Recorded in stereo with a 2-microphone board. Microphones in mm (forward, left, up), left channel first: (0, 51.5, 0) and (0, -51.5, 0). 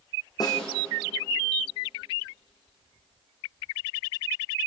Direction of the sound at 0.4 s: 40° left (ahead or behind).